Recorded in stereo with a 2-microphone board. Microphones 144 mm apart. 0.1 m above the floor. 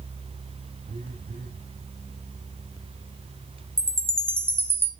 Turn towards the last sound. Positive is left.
turn(degrees=-15)  # may be behind; listen again after turning